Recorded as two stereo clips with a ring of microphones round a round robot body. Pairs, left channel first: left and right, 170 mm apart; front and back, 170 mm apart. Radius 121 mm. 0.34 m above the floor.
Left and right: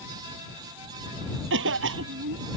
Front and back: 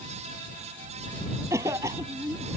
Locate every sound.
1.5 s a cough: 100° right